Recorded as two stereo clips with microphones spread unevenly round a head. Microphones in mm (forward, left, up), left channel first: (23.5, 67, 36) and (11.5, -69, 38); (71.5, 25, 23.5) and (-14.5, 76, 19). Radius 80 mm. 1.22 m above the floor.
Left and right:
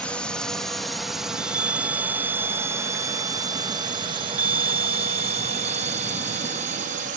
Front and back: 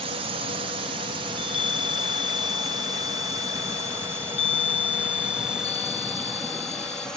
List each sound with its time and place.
0.0 s a drone: 165° left; by 7.2 s 115° right
1.3 s a chime: 15° right